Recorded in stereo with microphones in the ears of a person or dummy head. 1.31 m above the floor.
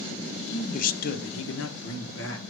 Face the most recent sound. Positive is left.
turn(degrees=65)  # may be behind; listen again after turning